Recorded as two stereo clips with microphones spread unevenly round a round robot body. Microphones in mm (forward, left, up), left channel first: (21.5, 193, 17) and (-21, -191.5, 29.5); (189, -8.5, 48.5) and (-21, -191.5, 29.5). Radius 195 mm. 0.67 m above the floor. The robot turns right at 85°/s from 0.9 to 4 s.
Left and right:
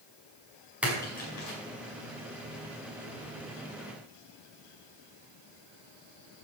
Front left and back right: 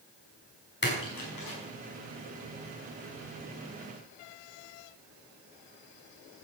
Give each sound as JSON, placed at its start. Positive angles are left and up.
{"t": 0.8, "sound": "a splash", "azimuth_deg": -10, "distance_m": 5.5}